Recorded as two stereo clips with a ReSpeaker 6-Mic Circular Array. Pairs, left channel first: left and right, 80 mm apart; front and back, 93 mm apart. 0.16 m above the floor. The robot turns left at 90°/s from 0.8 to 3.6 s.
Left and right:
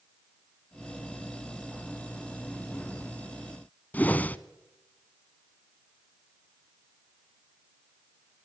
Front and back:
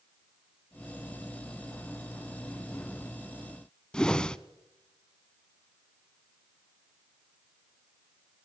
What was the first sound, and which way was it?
A whoosh, 65° left.